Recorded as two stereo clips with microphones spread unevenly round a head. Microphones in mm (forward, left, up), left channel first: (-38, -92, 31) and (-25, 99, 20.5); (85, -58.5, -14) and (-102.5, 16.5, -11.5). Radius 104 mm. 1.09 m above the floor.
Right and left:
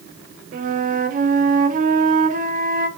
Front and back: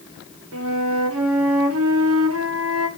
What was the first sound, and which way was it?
A flute, 135° left.